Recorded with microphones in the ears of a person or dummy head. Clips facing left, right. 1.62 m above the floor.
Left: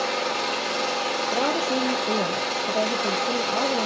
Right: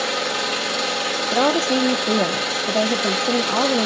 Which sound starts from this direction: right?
A woman speaking, at 1.3 s.